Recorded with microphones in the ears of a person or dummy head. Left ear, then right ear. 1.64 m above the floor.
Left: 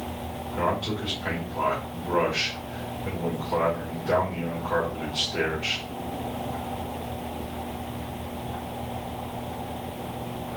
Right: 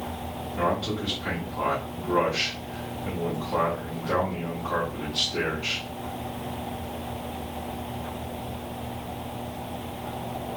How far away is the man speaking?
About 1.7 m.